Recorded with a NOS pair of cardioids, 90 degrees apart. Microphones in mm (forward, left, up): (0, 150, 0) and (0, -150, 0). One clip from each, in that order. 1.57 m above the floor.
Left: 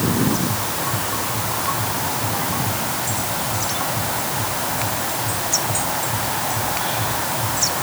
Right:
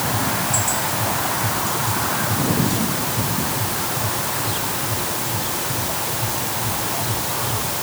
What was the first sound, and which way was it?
Only background noise.